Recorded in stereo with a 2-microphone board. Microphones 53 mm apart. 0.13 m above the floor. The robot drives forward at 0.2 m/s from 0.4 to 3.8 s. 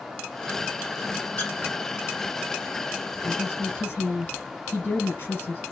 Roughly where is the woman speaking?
Left.